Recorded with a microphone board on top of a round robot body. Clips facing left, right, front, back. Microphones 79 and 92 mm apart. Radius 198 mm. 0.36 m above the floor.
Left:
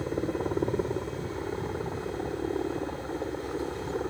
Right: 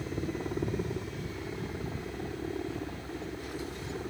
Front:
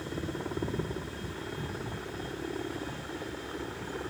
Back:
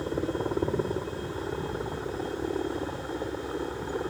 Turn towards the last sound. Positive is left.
turn(degrees=125)